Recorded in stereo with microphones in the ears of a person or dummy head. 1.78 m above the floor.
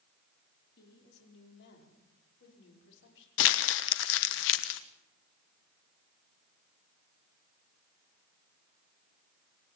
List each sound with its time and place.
0.8 s a woman speaking: 60° left (ahead or behind), 5.5 m; by 3.3 s 70° left (ahead or behind), 7 m
3.4 s crumpling: 65° left (ahead or behind), 1.3 m